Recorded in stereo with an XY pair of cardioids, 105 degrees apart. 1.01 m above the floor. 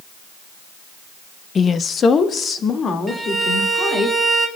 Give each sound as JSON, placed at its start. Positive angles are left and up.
{"t": 1.6, "sound": "a woman speaking", "azimuth_deg": 40, "distance_m": 0.5}
{"t": 3.1, "sound": "a violin", "azimuth_deg": 0, "distance_m": 2.0}